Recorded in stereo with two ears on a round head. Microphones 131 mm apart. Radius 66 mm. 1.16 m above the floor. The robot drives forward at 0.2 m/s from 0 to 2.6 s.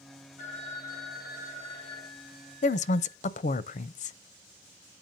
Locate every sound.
0.4 s a phone ringing: 50° left (ahead or behind), 5.5 m; by 3.2 s 45° left (ahead or behind), 6 m
2.6 s a woman speaking: 50° left (ahead or behind), 0.5 m